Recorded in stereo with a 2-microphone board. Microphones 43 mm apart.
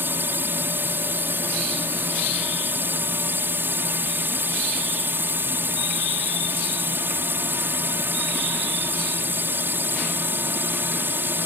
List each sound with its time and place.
0.0 s a drone: 55° right (ahead or behind)